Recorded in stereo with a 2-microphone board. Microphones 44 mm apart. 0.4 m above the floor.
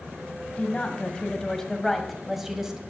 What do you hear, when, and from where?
0.6 s a woman speaking: 30° left (ahead or behind), 2.0 m; by 2.8 s 10° right (ahead or behind), 1.8 m